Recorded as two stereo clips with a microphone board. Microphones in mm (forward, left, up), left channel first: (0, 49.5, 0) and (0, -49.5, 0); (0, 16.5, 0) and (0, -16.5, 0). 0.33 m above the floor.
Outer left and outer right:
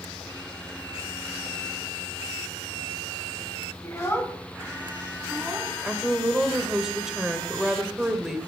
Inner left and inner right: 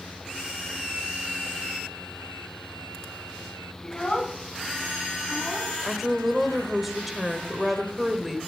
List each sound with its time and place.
3.8 s a child speaking: 30° left (ahead or behind), 1.9 m; by 5.8 s 20° right (ahead or behind), 1.7 m
5.8 s a woman speaking: 5° right (ahead or behind), 1.3 m